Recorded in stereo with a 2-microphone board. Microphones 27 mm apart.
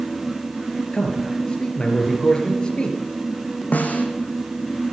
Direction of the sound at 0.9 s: 30° left (ahead or behind).